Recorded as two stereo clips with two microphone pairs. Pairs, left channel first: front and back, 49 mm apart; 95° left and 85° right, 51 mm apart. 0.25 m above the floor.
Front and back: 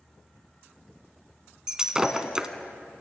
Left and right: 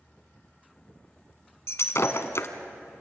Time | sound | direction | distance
1.7 | breaking glass | 105° left | 1.3 m